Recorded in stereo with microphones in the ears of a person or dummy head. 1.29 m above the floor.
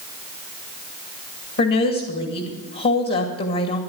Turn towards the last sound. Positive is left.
turn(degrees=50)  # may be behind; listen again after turning